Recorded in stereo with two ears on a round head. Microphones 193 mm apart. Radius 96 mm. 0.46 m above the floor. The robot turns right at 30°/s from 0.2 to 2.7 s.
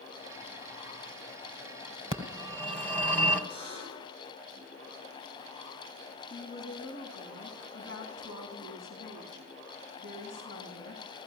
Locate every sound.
2.1 s a phone ringing: 25° left (ahead or behind), 1.8 m; by 3.4 s 10° left (ahead or behind), 1.8 m
3.5 s a buzzer: 30° left (ahead or behind), 8.5 m
6.3 s a woman speaking: 65° left (ahead or behind), 4.5 m